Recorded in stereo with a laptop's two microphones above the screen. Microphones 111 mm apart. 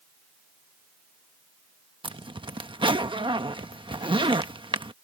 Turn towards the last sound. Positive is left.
turn(degrees=-50)  # may be behind; listen again after turning